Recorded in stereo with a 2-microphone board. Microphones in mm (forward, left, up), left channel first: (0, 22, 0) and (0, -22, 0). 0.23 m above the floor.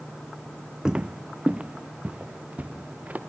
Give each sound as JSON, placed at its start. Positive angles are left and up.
{"t": 0.8, "sound": "footsteps", "side_deg": -15, "distance_m": 0.5}